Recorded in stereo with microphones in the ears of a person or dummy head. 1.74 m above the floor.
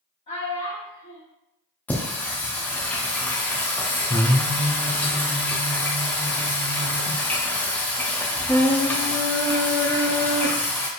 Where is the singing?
10° left (ahead or behind), 0.6 m.